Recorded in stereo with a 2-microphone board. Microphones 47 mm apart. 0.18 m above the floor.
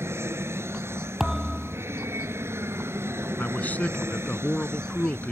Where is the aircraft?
65° right (ahead or behind); by 5.3 s 60° right (ahead or behind).